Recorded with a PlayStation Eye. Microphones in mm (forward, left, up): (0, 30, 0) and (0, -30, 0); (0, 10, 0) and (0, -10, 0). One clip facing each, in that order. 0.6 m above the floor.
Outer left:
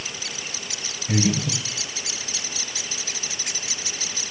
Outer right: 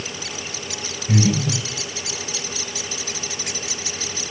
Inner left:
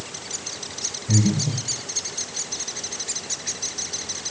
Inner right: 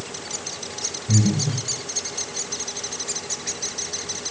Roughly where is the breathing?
Centre.